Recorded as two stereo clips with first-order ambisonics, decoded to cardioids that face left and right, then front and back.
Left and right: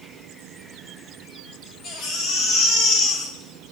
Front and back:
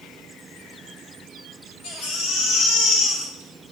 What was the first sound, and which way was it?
A baby crying, 20° left.